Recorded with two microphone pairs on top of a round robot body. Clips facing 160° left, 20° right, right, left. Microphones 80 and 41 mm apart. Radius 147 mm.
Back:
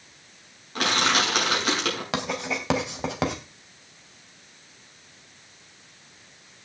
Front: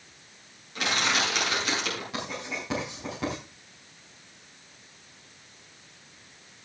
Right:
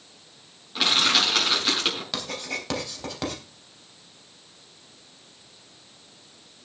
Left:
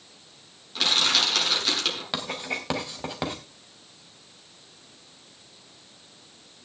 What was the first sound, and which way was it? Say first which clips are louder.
Crushing: back 4 dB, right 2 dB; 165° right.